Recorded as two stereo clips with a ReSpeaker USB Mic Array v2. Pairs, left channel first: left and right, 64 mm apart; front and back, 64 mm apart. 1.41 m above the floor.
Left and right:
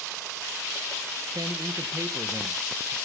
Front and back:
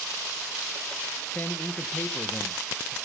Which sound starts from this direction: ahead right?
A man speaking, at 1.3 s.